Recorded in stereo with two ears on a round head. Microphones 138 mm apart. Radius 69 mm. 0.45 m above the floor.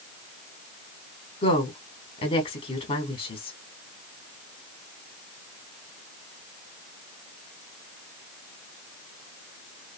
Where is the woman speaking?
40° left (ahead or behind), 1.2 m.